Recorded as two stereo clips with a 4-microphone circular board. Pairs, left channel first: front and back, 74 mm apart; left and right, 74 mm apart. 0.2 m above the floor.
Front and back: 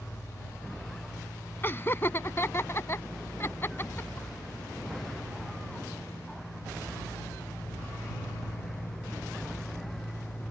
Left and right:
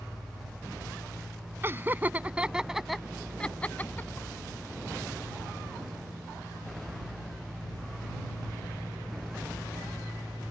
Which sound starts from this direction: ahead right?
Laughter, at 1.6 s.